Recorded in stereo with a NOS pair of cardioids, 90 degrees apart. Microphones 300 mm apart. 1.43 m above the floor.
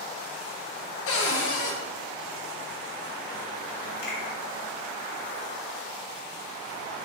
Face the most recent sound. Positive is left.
turn(degrees=35)